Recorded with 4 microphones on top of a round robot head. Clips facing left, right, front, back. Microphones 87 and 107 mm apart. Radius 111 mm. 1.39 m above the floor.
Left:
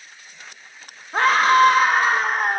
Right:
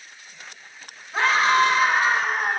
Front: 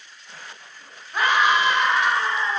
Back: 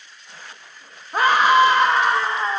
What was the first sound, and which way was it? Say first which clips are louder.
A scream: left 4 dB, back 5 dB; 130° left.